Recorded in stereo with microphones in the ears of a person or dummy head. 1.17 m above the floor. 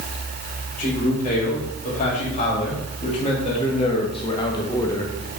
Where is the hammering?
No hammering in this recording.